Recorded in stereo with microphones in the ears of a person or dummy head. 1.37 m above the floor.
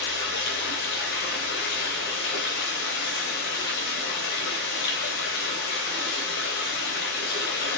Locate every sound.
0.0 s running water: 70° left (ahead or behind), 3.5 m